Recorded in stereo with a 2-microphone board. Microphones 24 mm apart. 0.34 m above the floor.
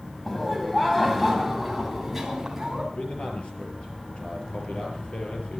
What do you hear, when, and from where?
0.2 s laughter: 15° left (ahead or behind), 2.5 m; by 2.8 s 10° right (ahead or behind), 3 m
2.9 s a man speaking: 60° left (ahead or behind), 5.5 m